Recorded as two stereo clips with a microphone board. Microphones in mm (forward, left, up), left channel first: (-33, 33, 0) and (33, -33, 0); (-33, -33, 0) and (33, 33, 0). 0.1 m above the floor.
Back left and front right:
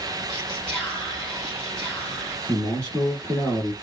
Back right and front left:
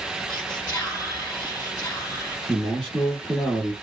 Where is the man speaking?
Straight behind, 1.6 m.